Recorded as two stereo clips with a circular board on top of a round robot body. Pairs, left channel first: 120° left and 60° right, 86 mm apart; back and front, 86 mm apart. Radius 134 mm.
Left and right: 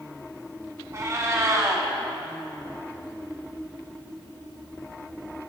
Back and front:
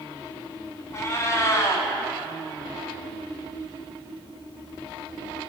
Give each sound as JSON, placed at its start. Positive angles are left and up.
{"t": 0.9, "sound": "a cat meowing", "azimuth_deg": -120, "distance_m": 0.8}